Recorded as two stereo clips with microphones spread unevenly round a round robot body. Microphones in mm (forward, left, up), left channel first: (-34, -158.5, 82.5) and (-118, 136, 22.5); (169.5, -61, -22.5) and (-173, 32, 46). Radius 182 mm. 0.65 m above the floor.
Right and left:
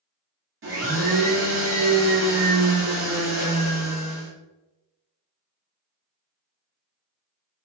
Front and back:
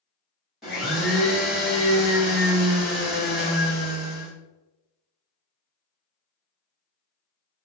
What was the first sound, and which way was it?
A blender, 70° left.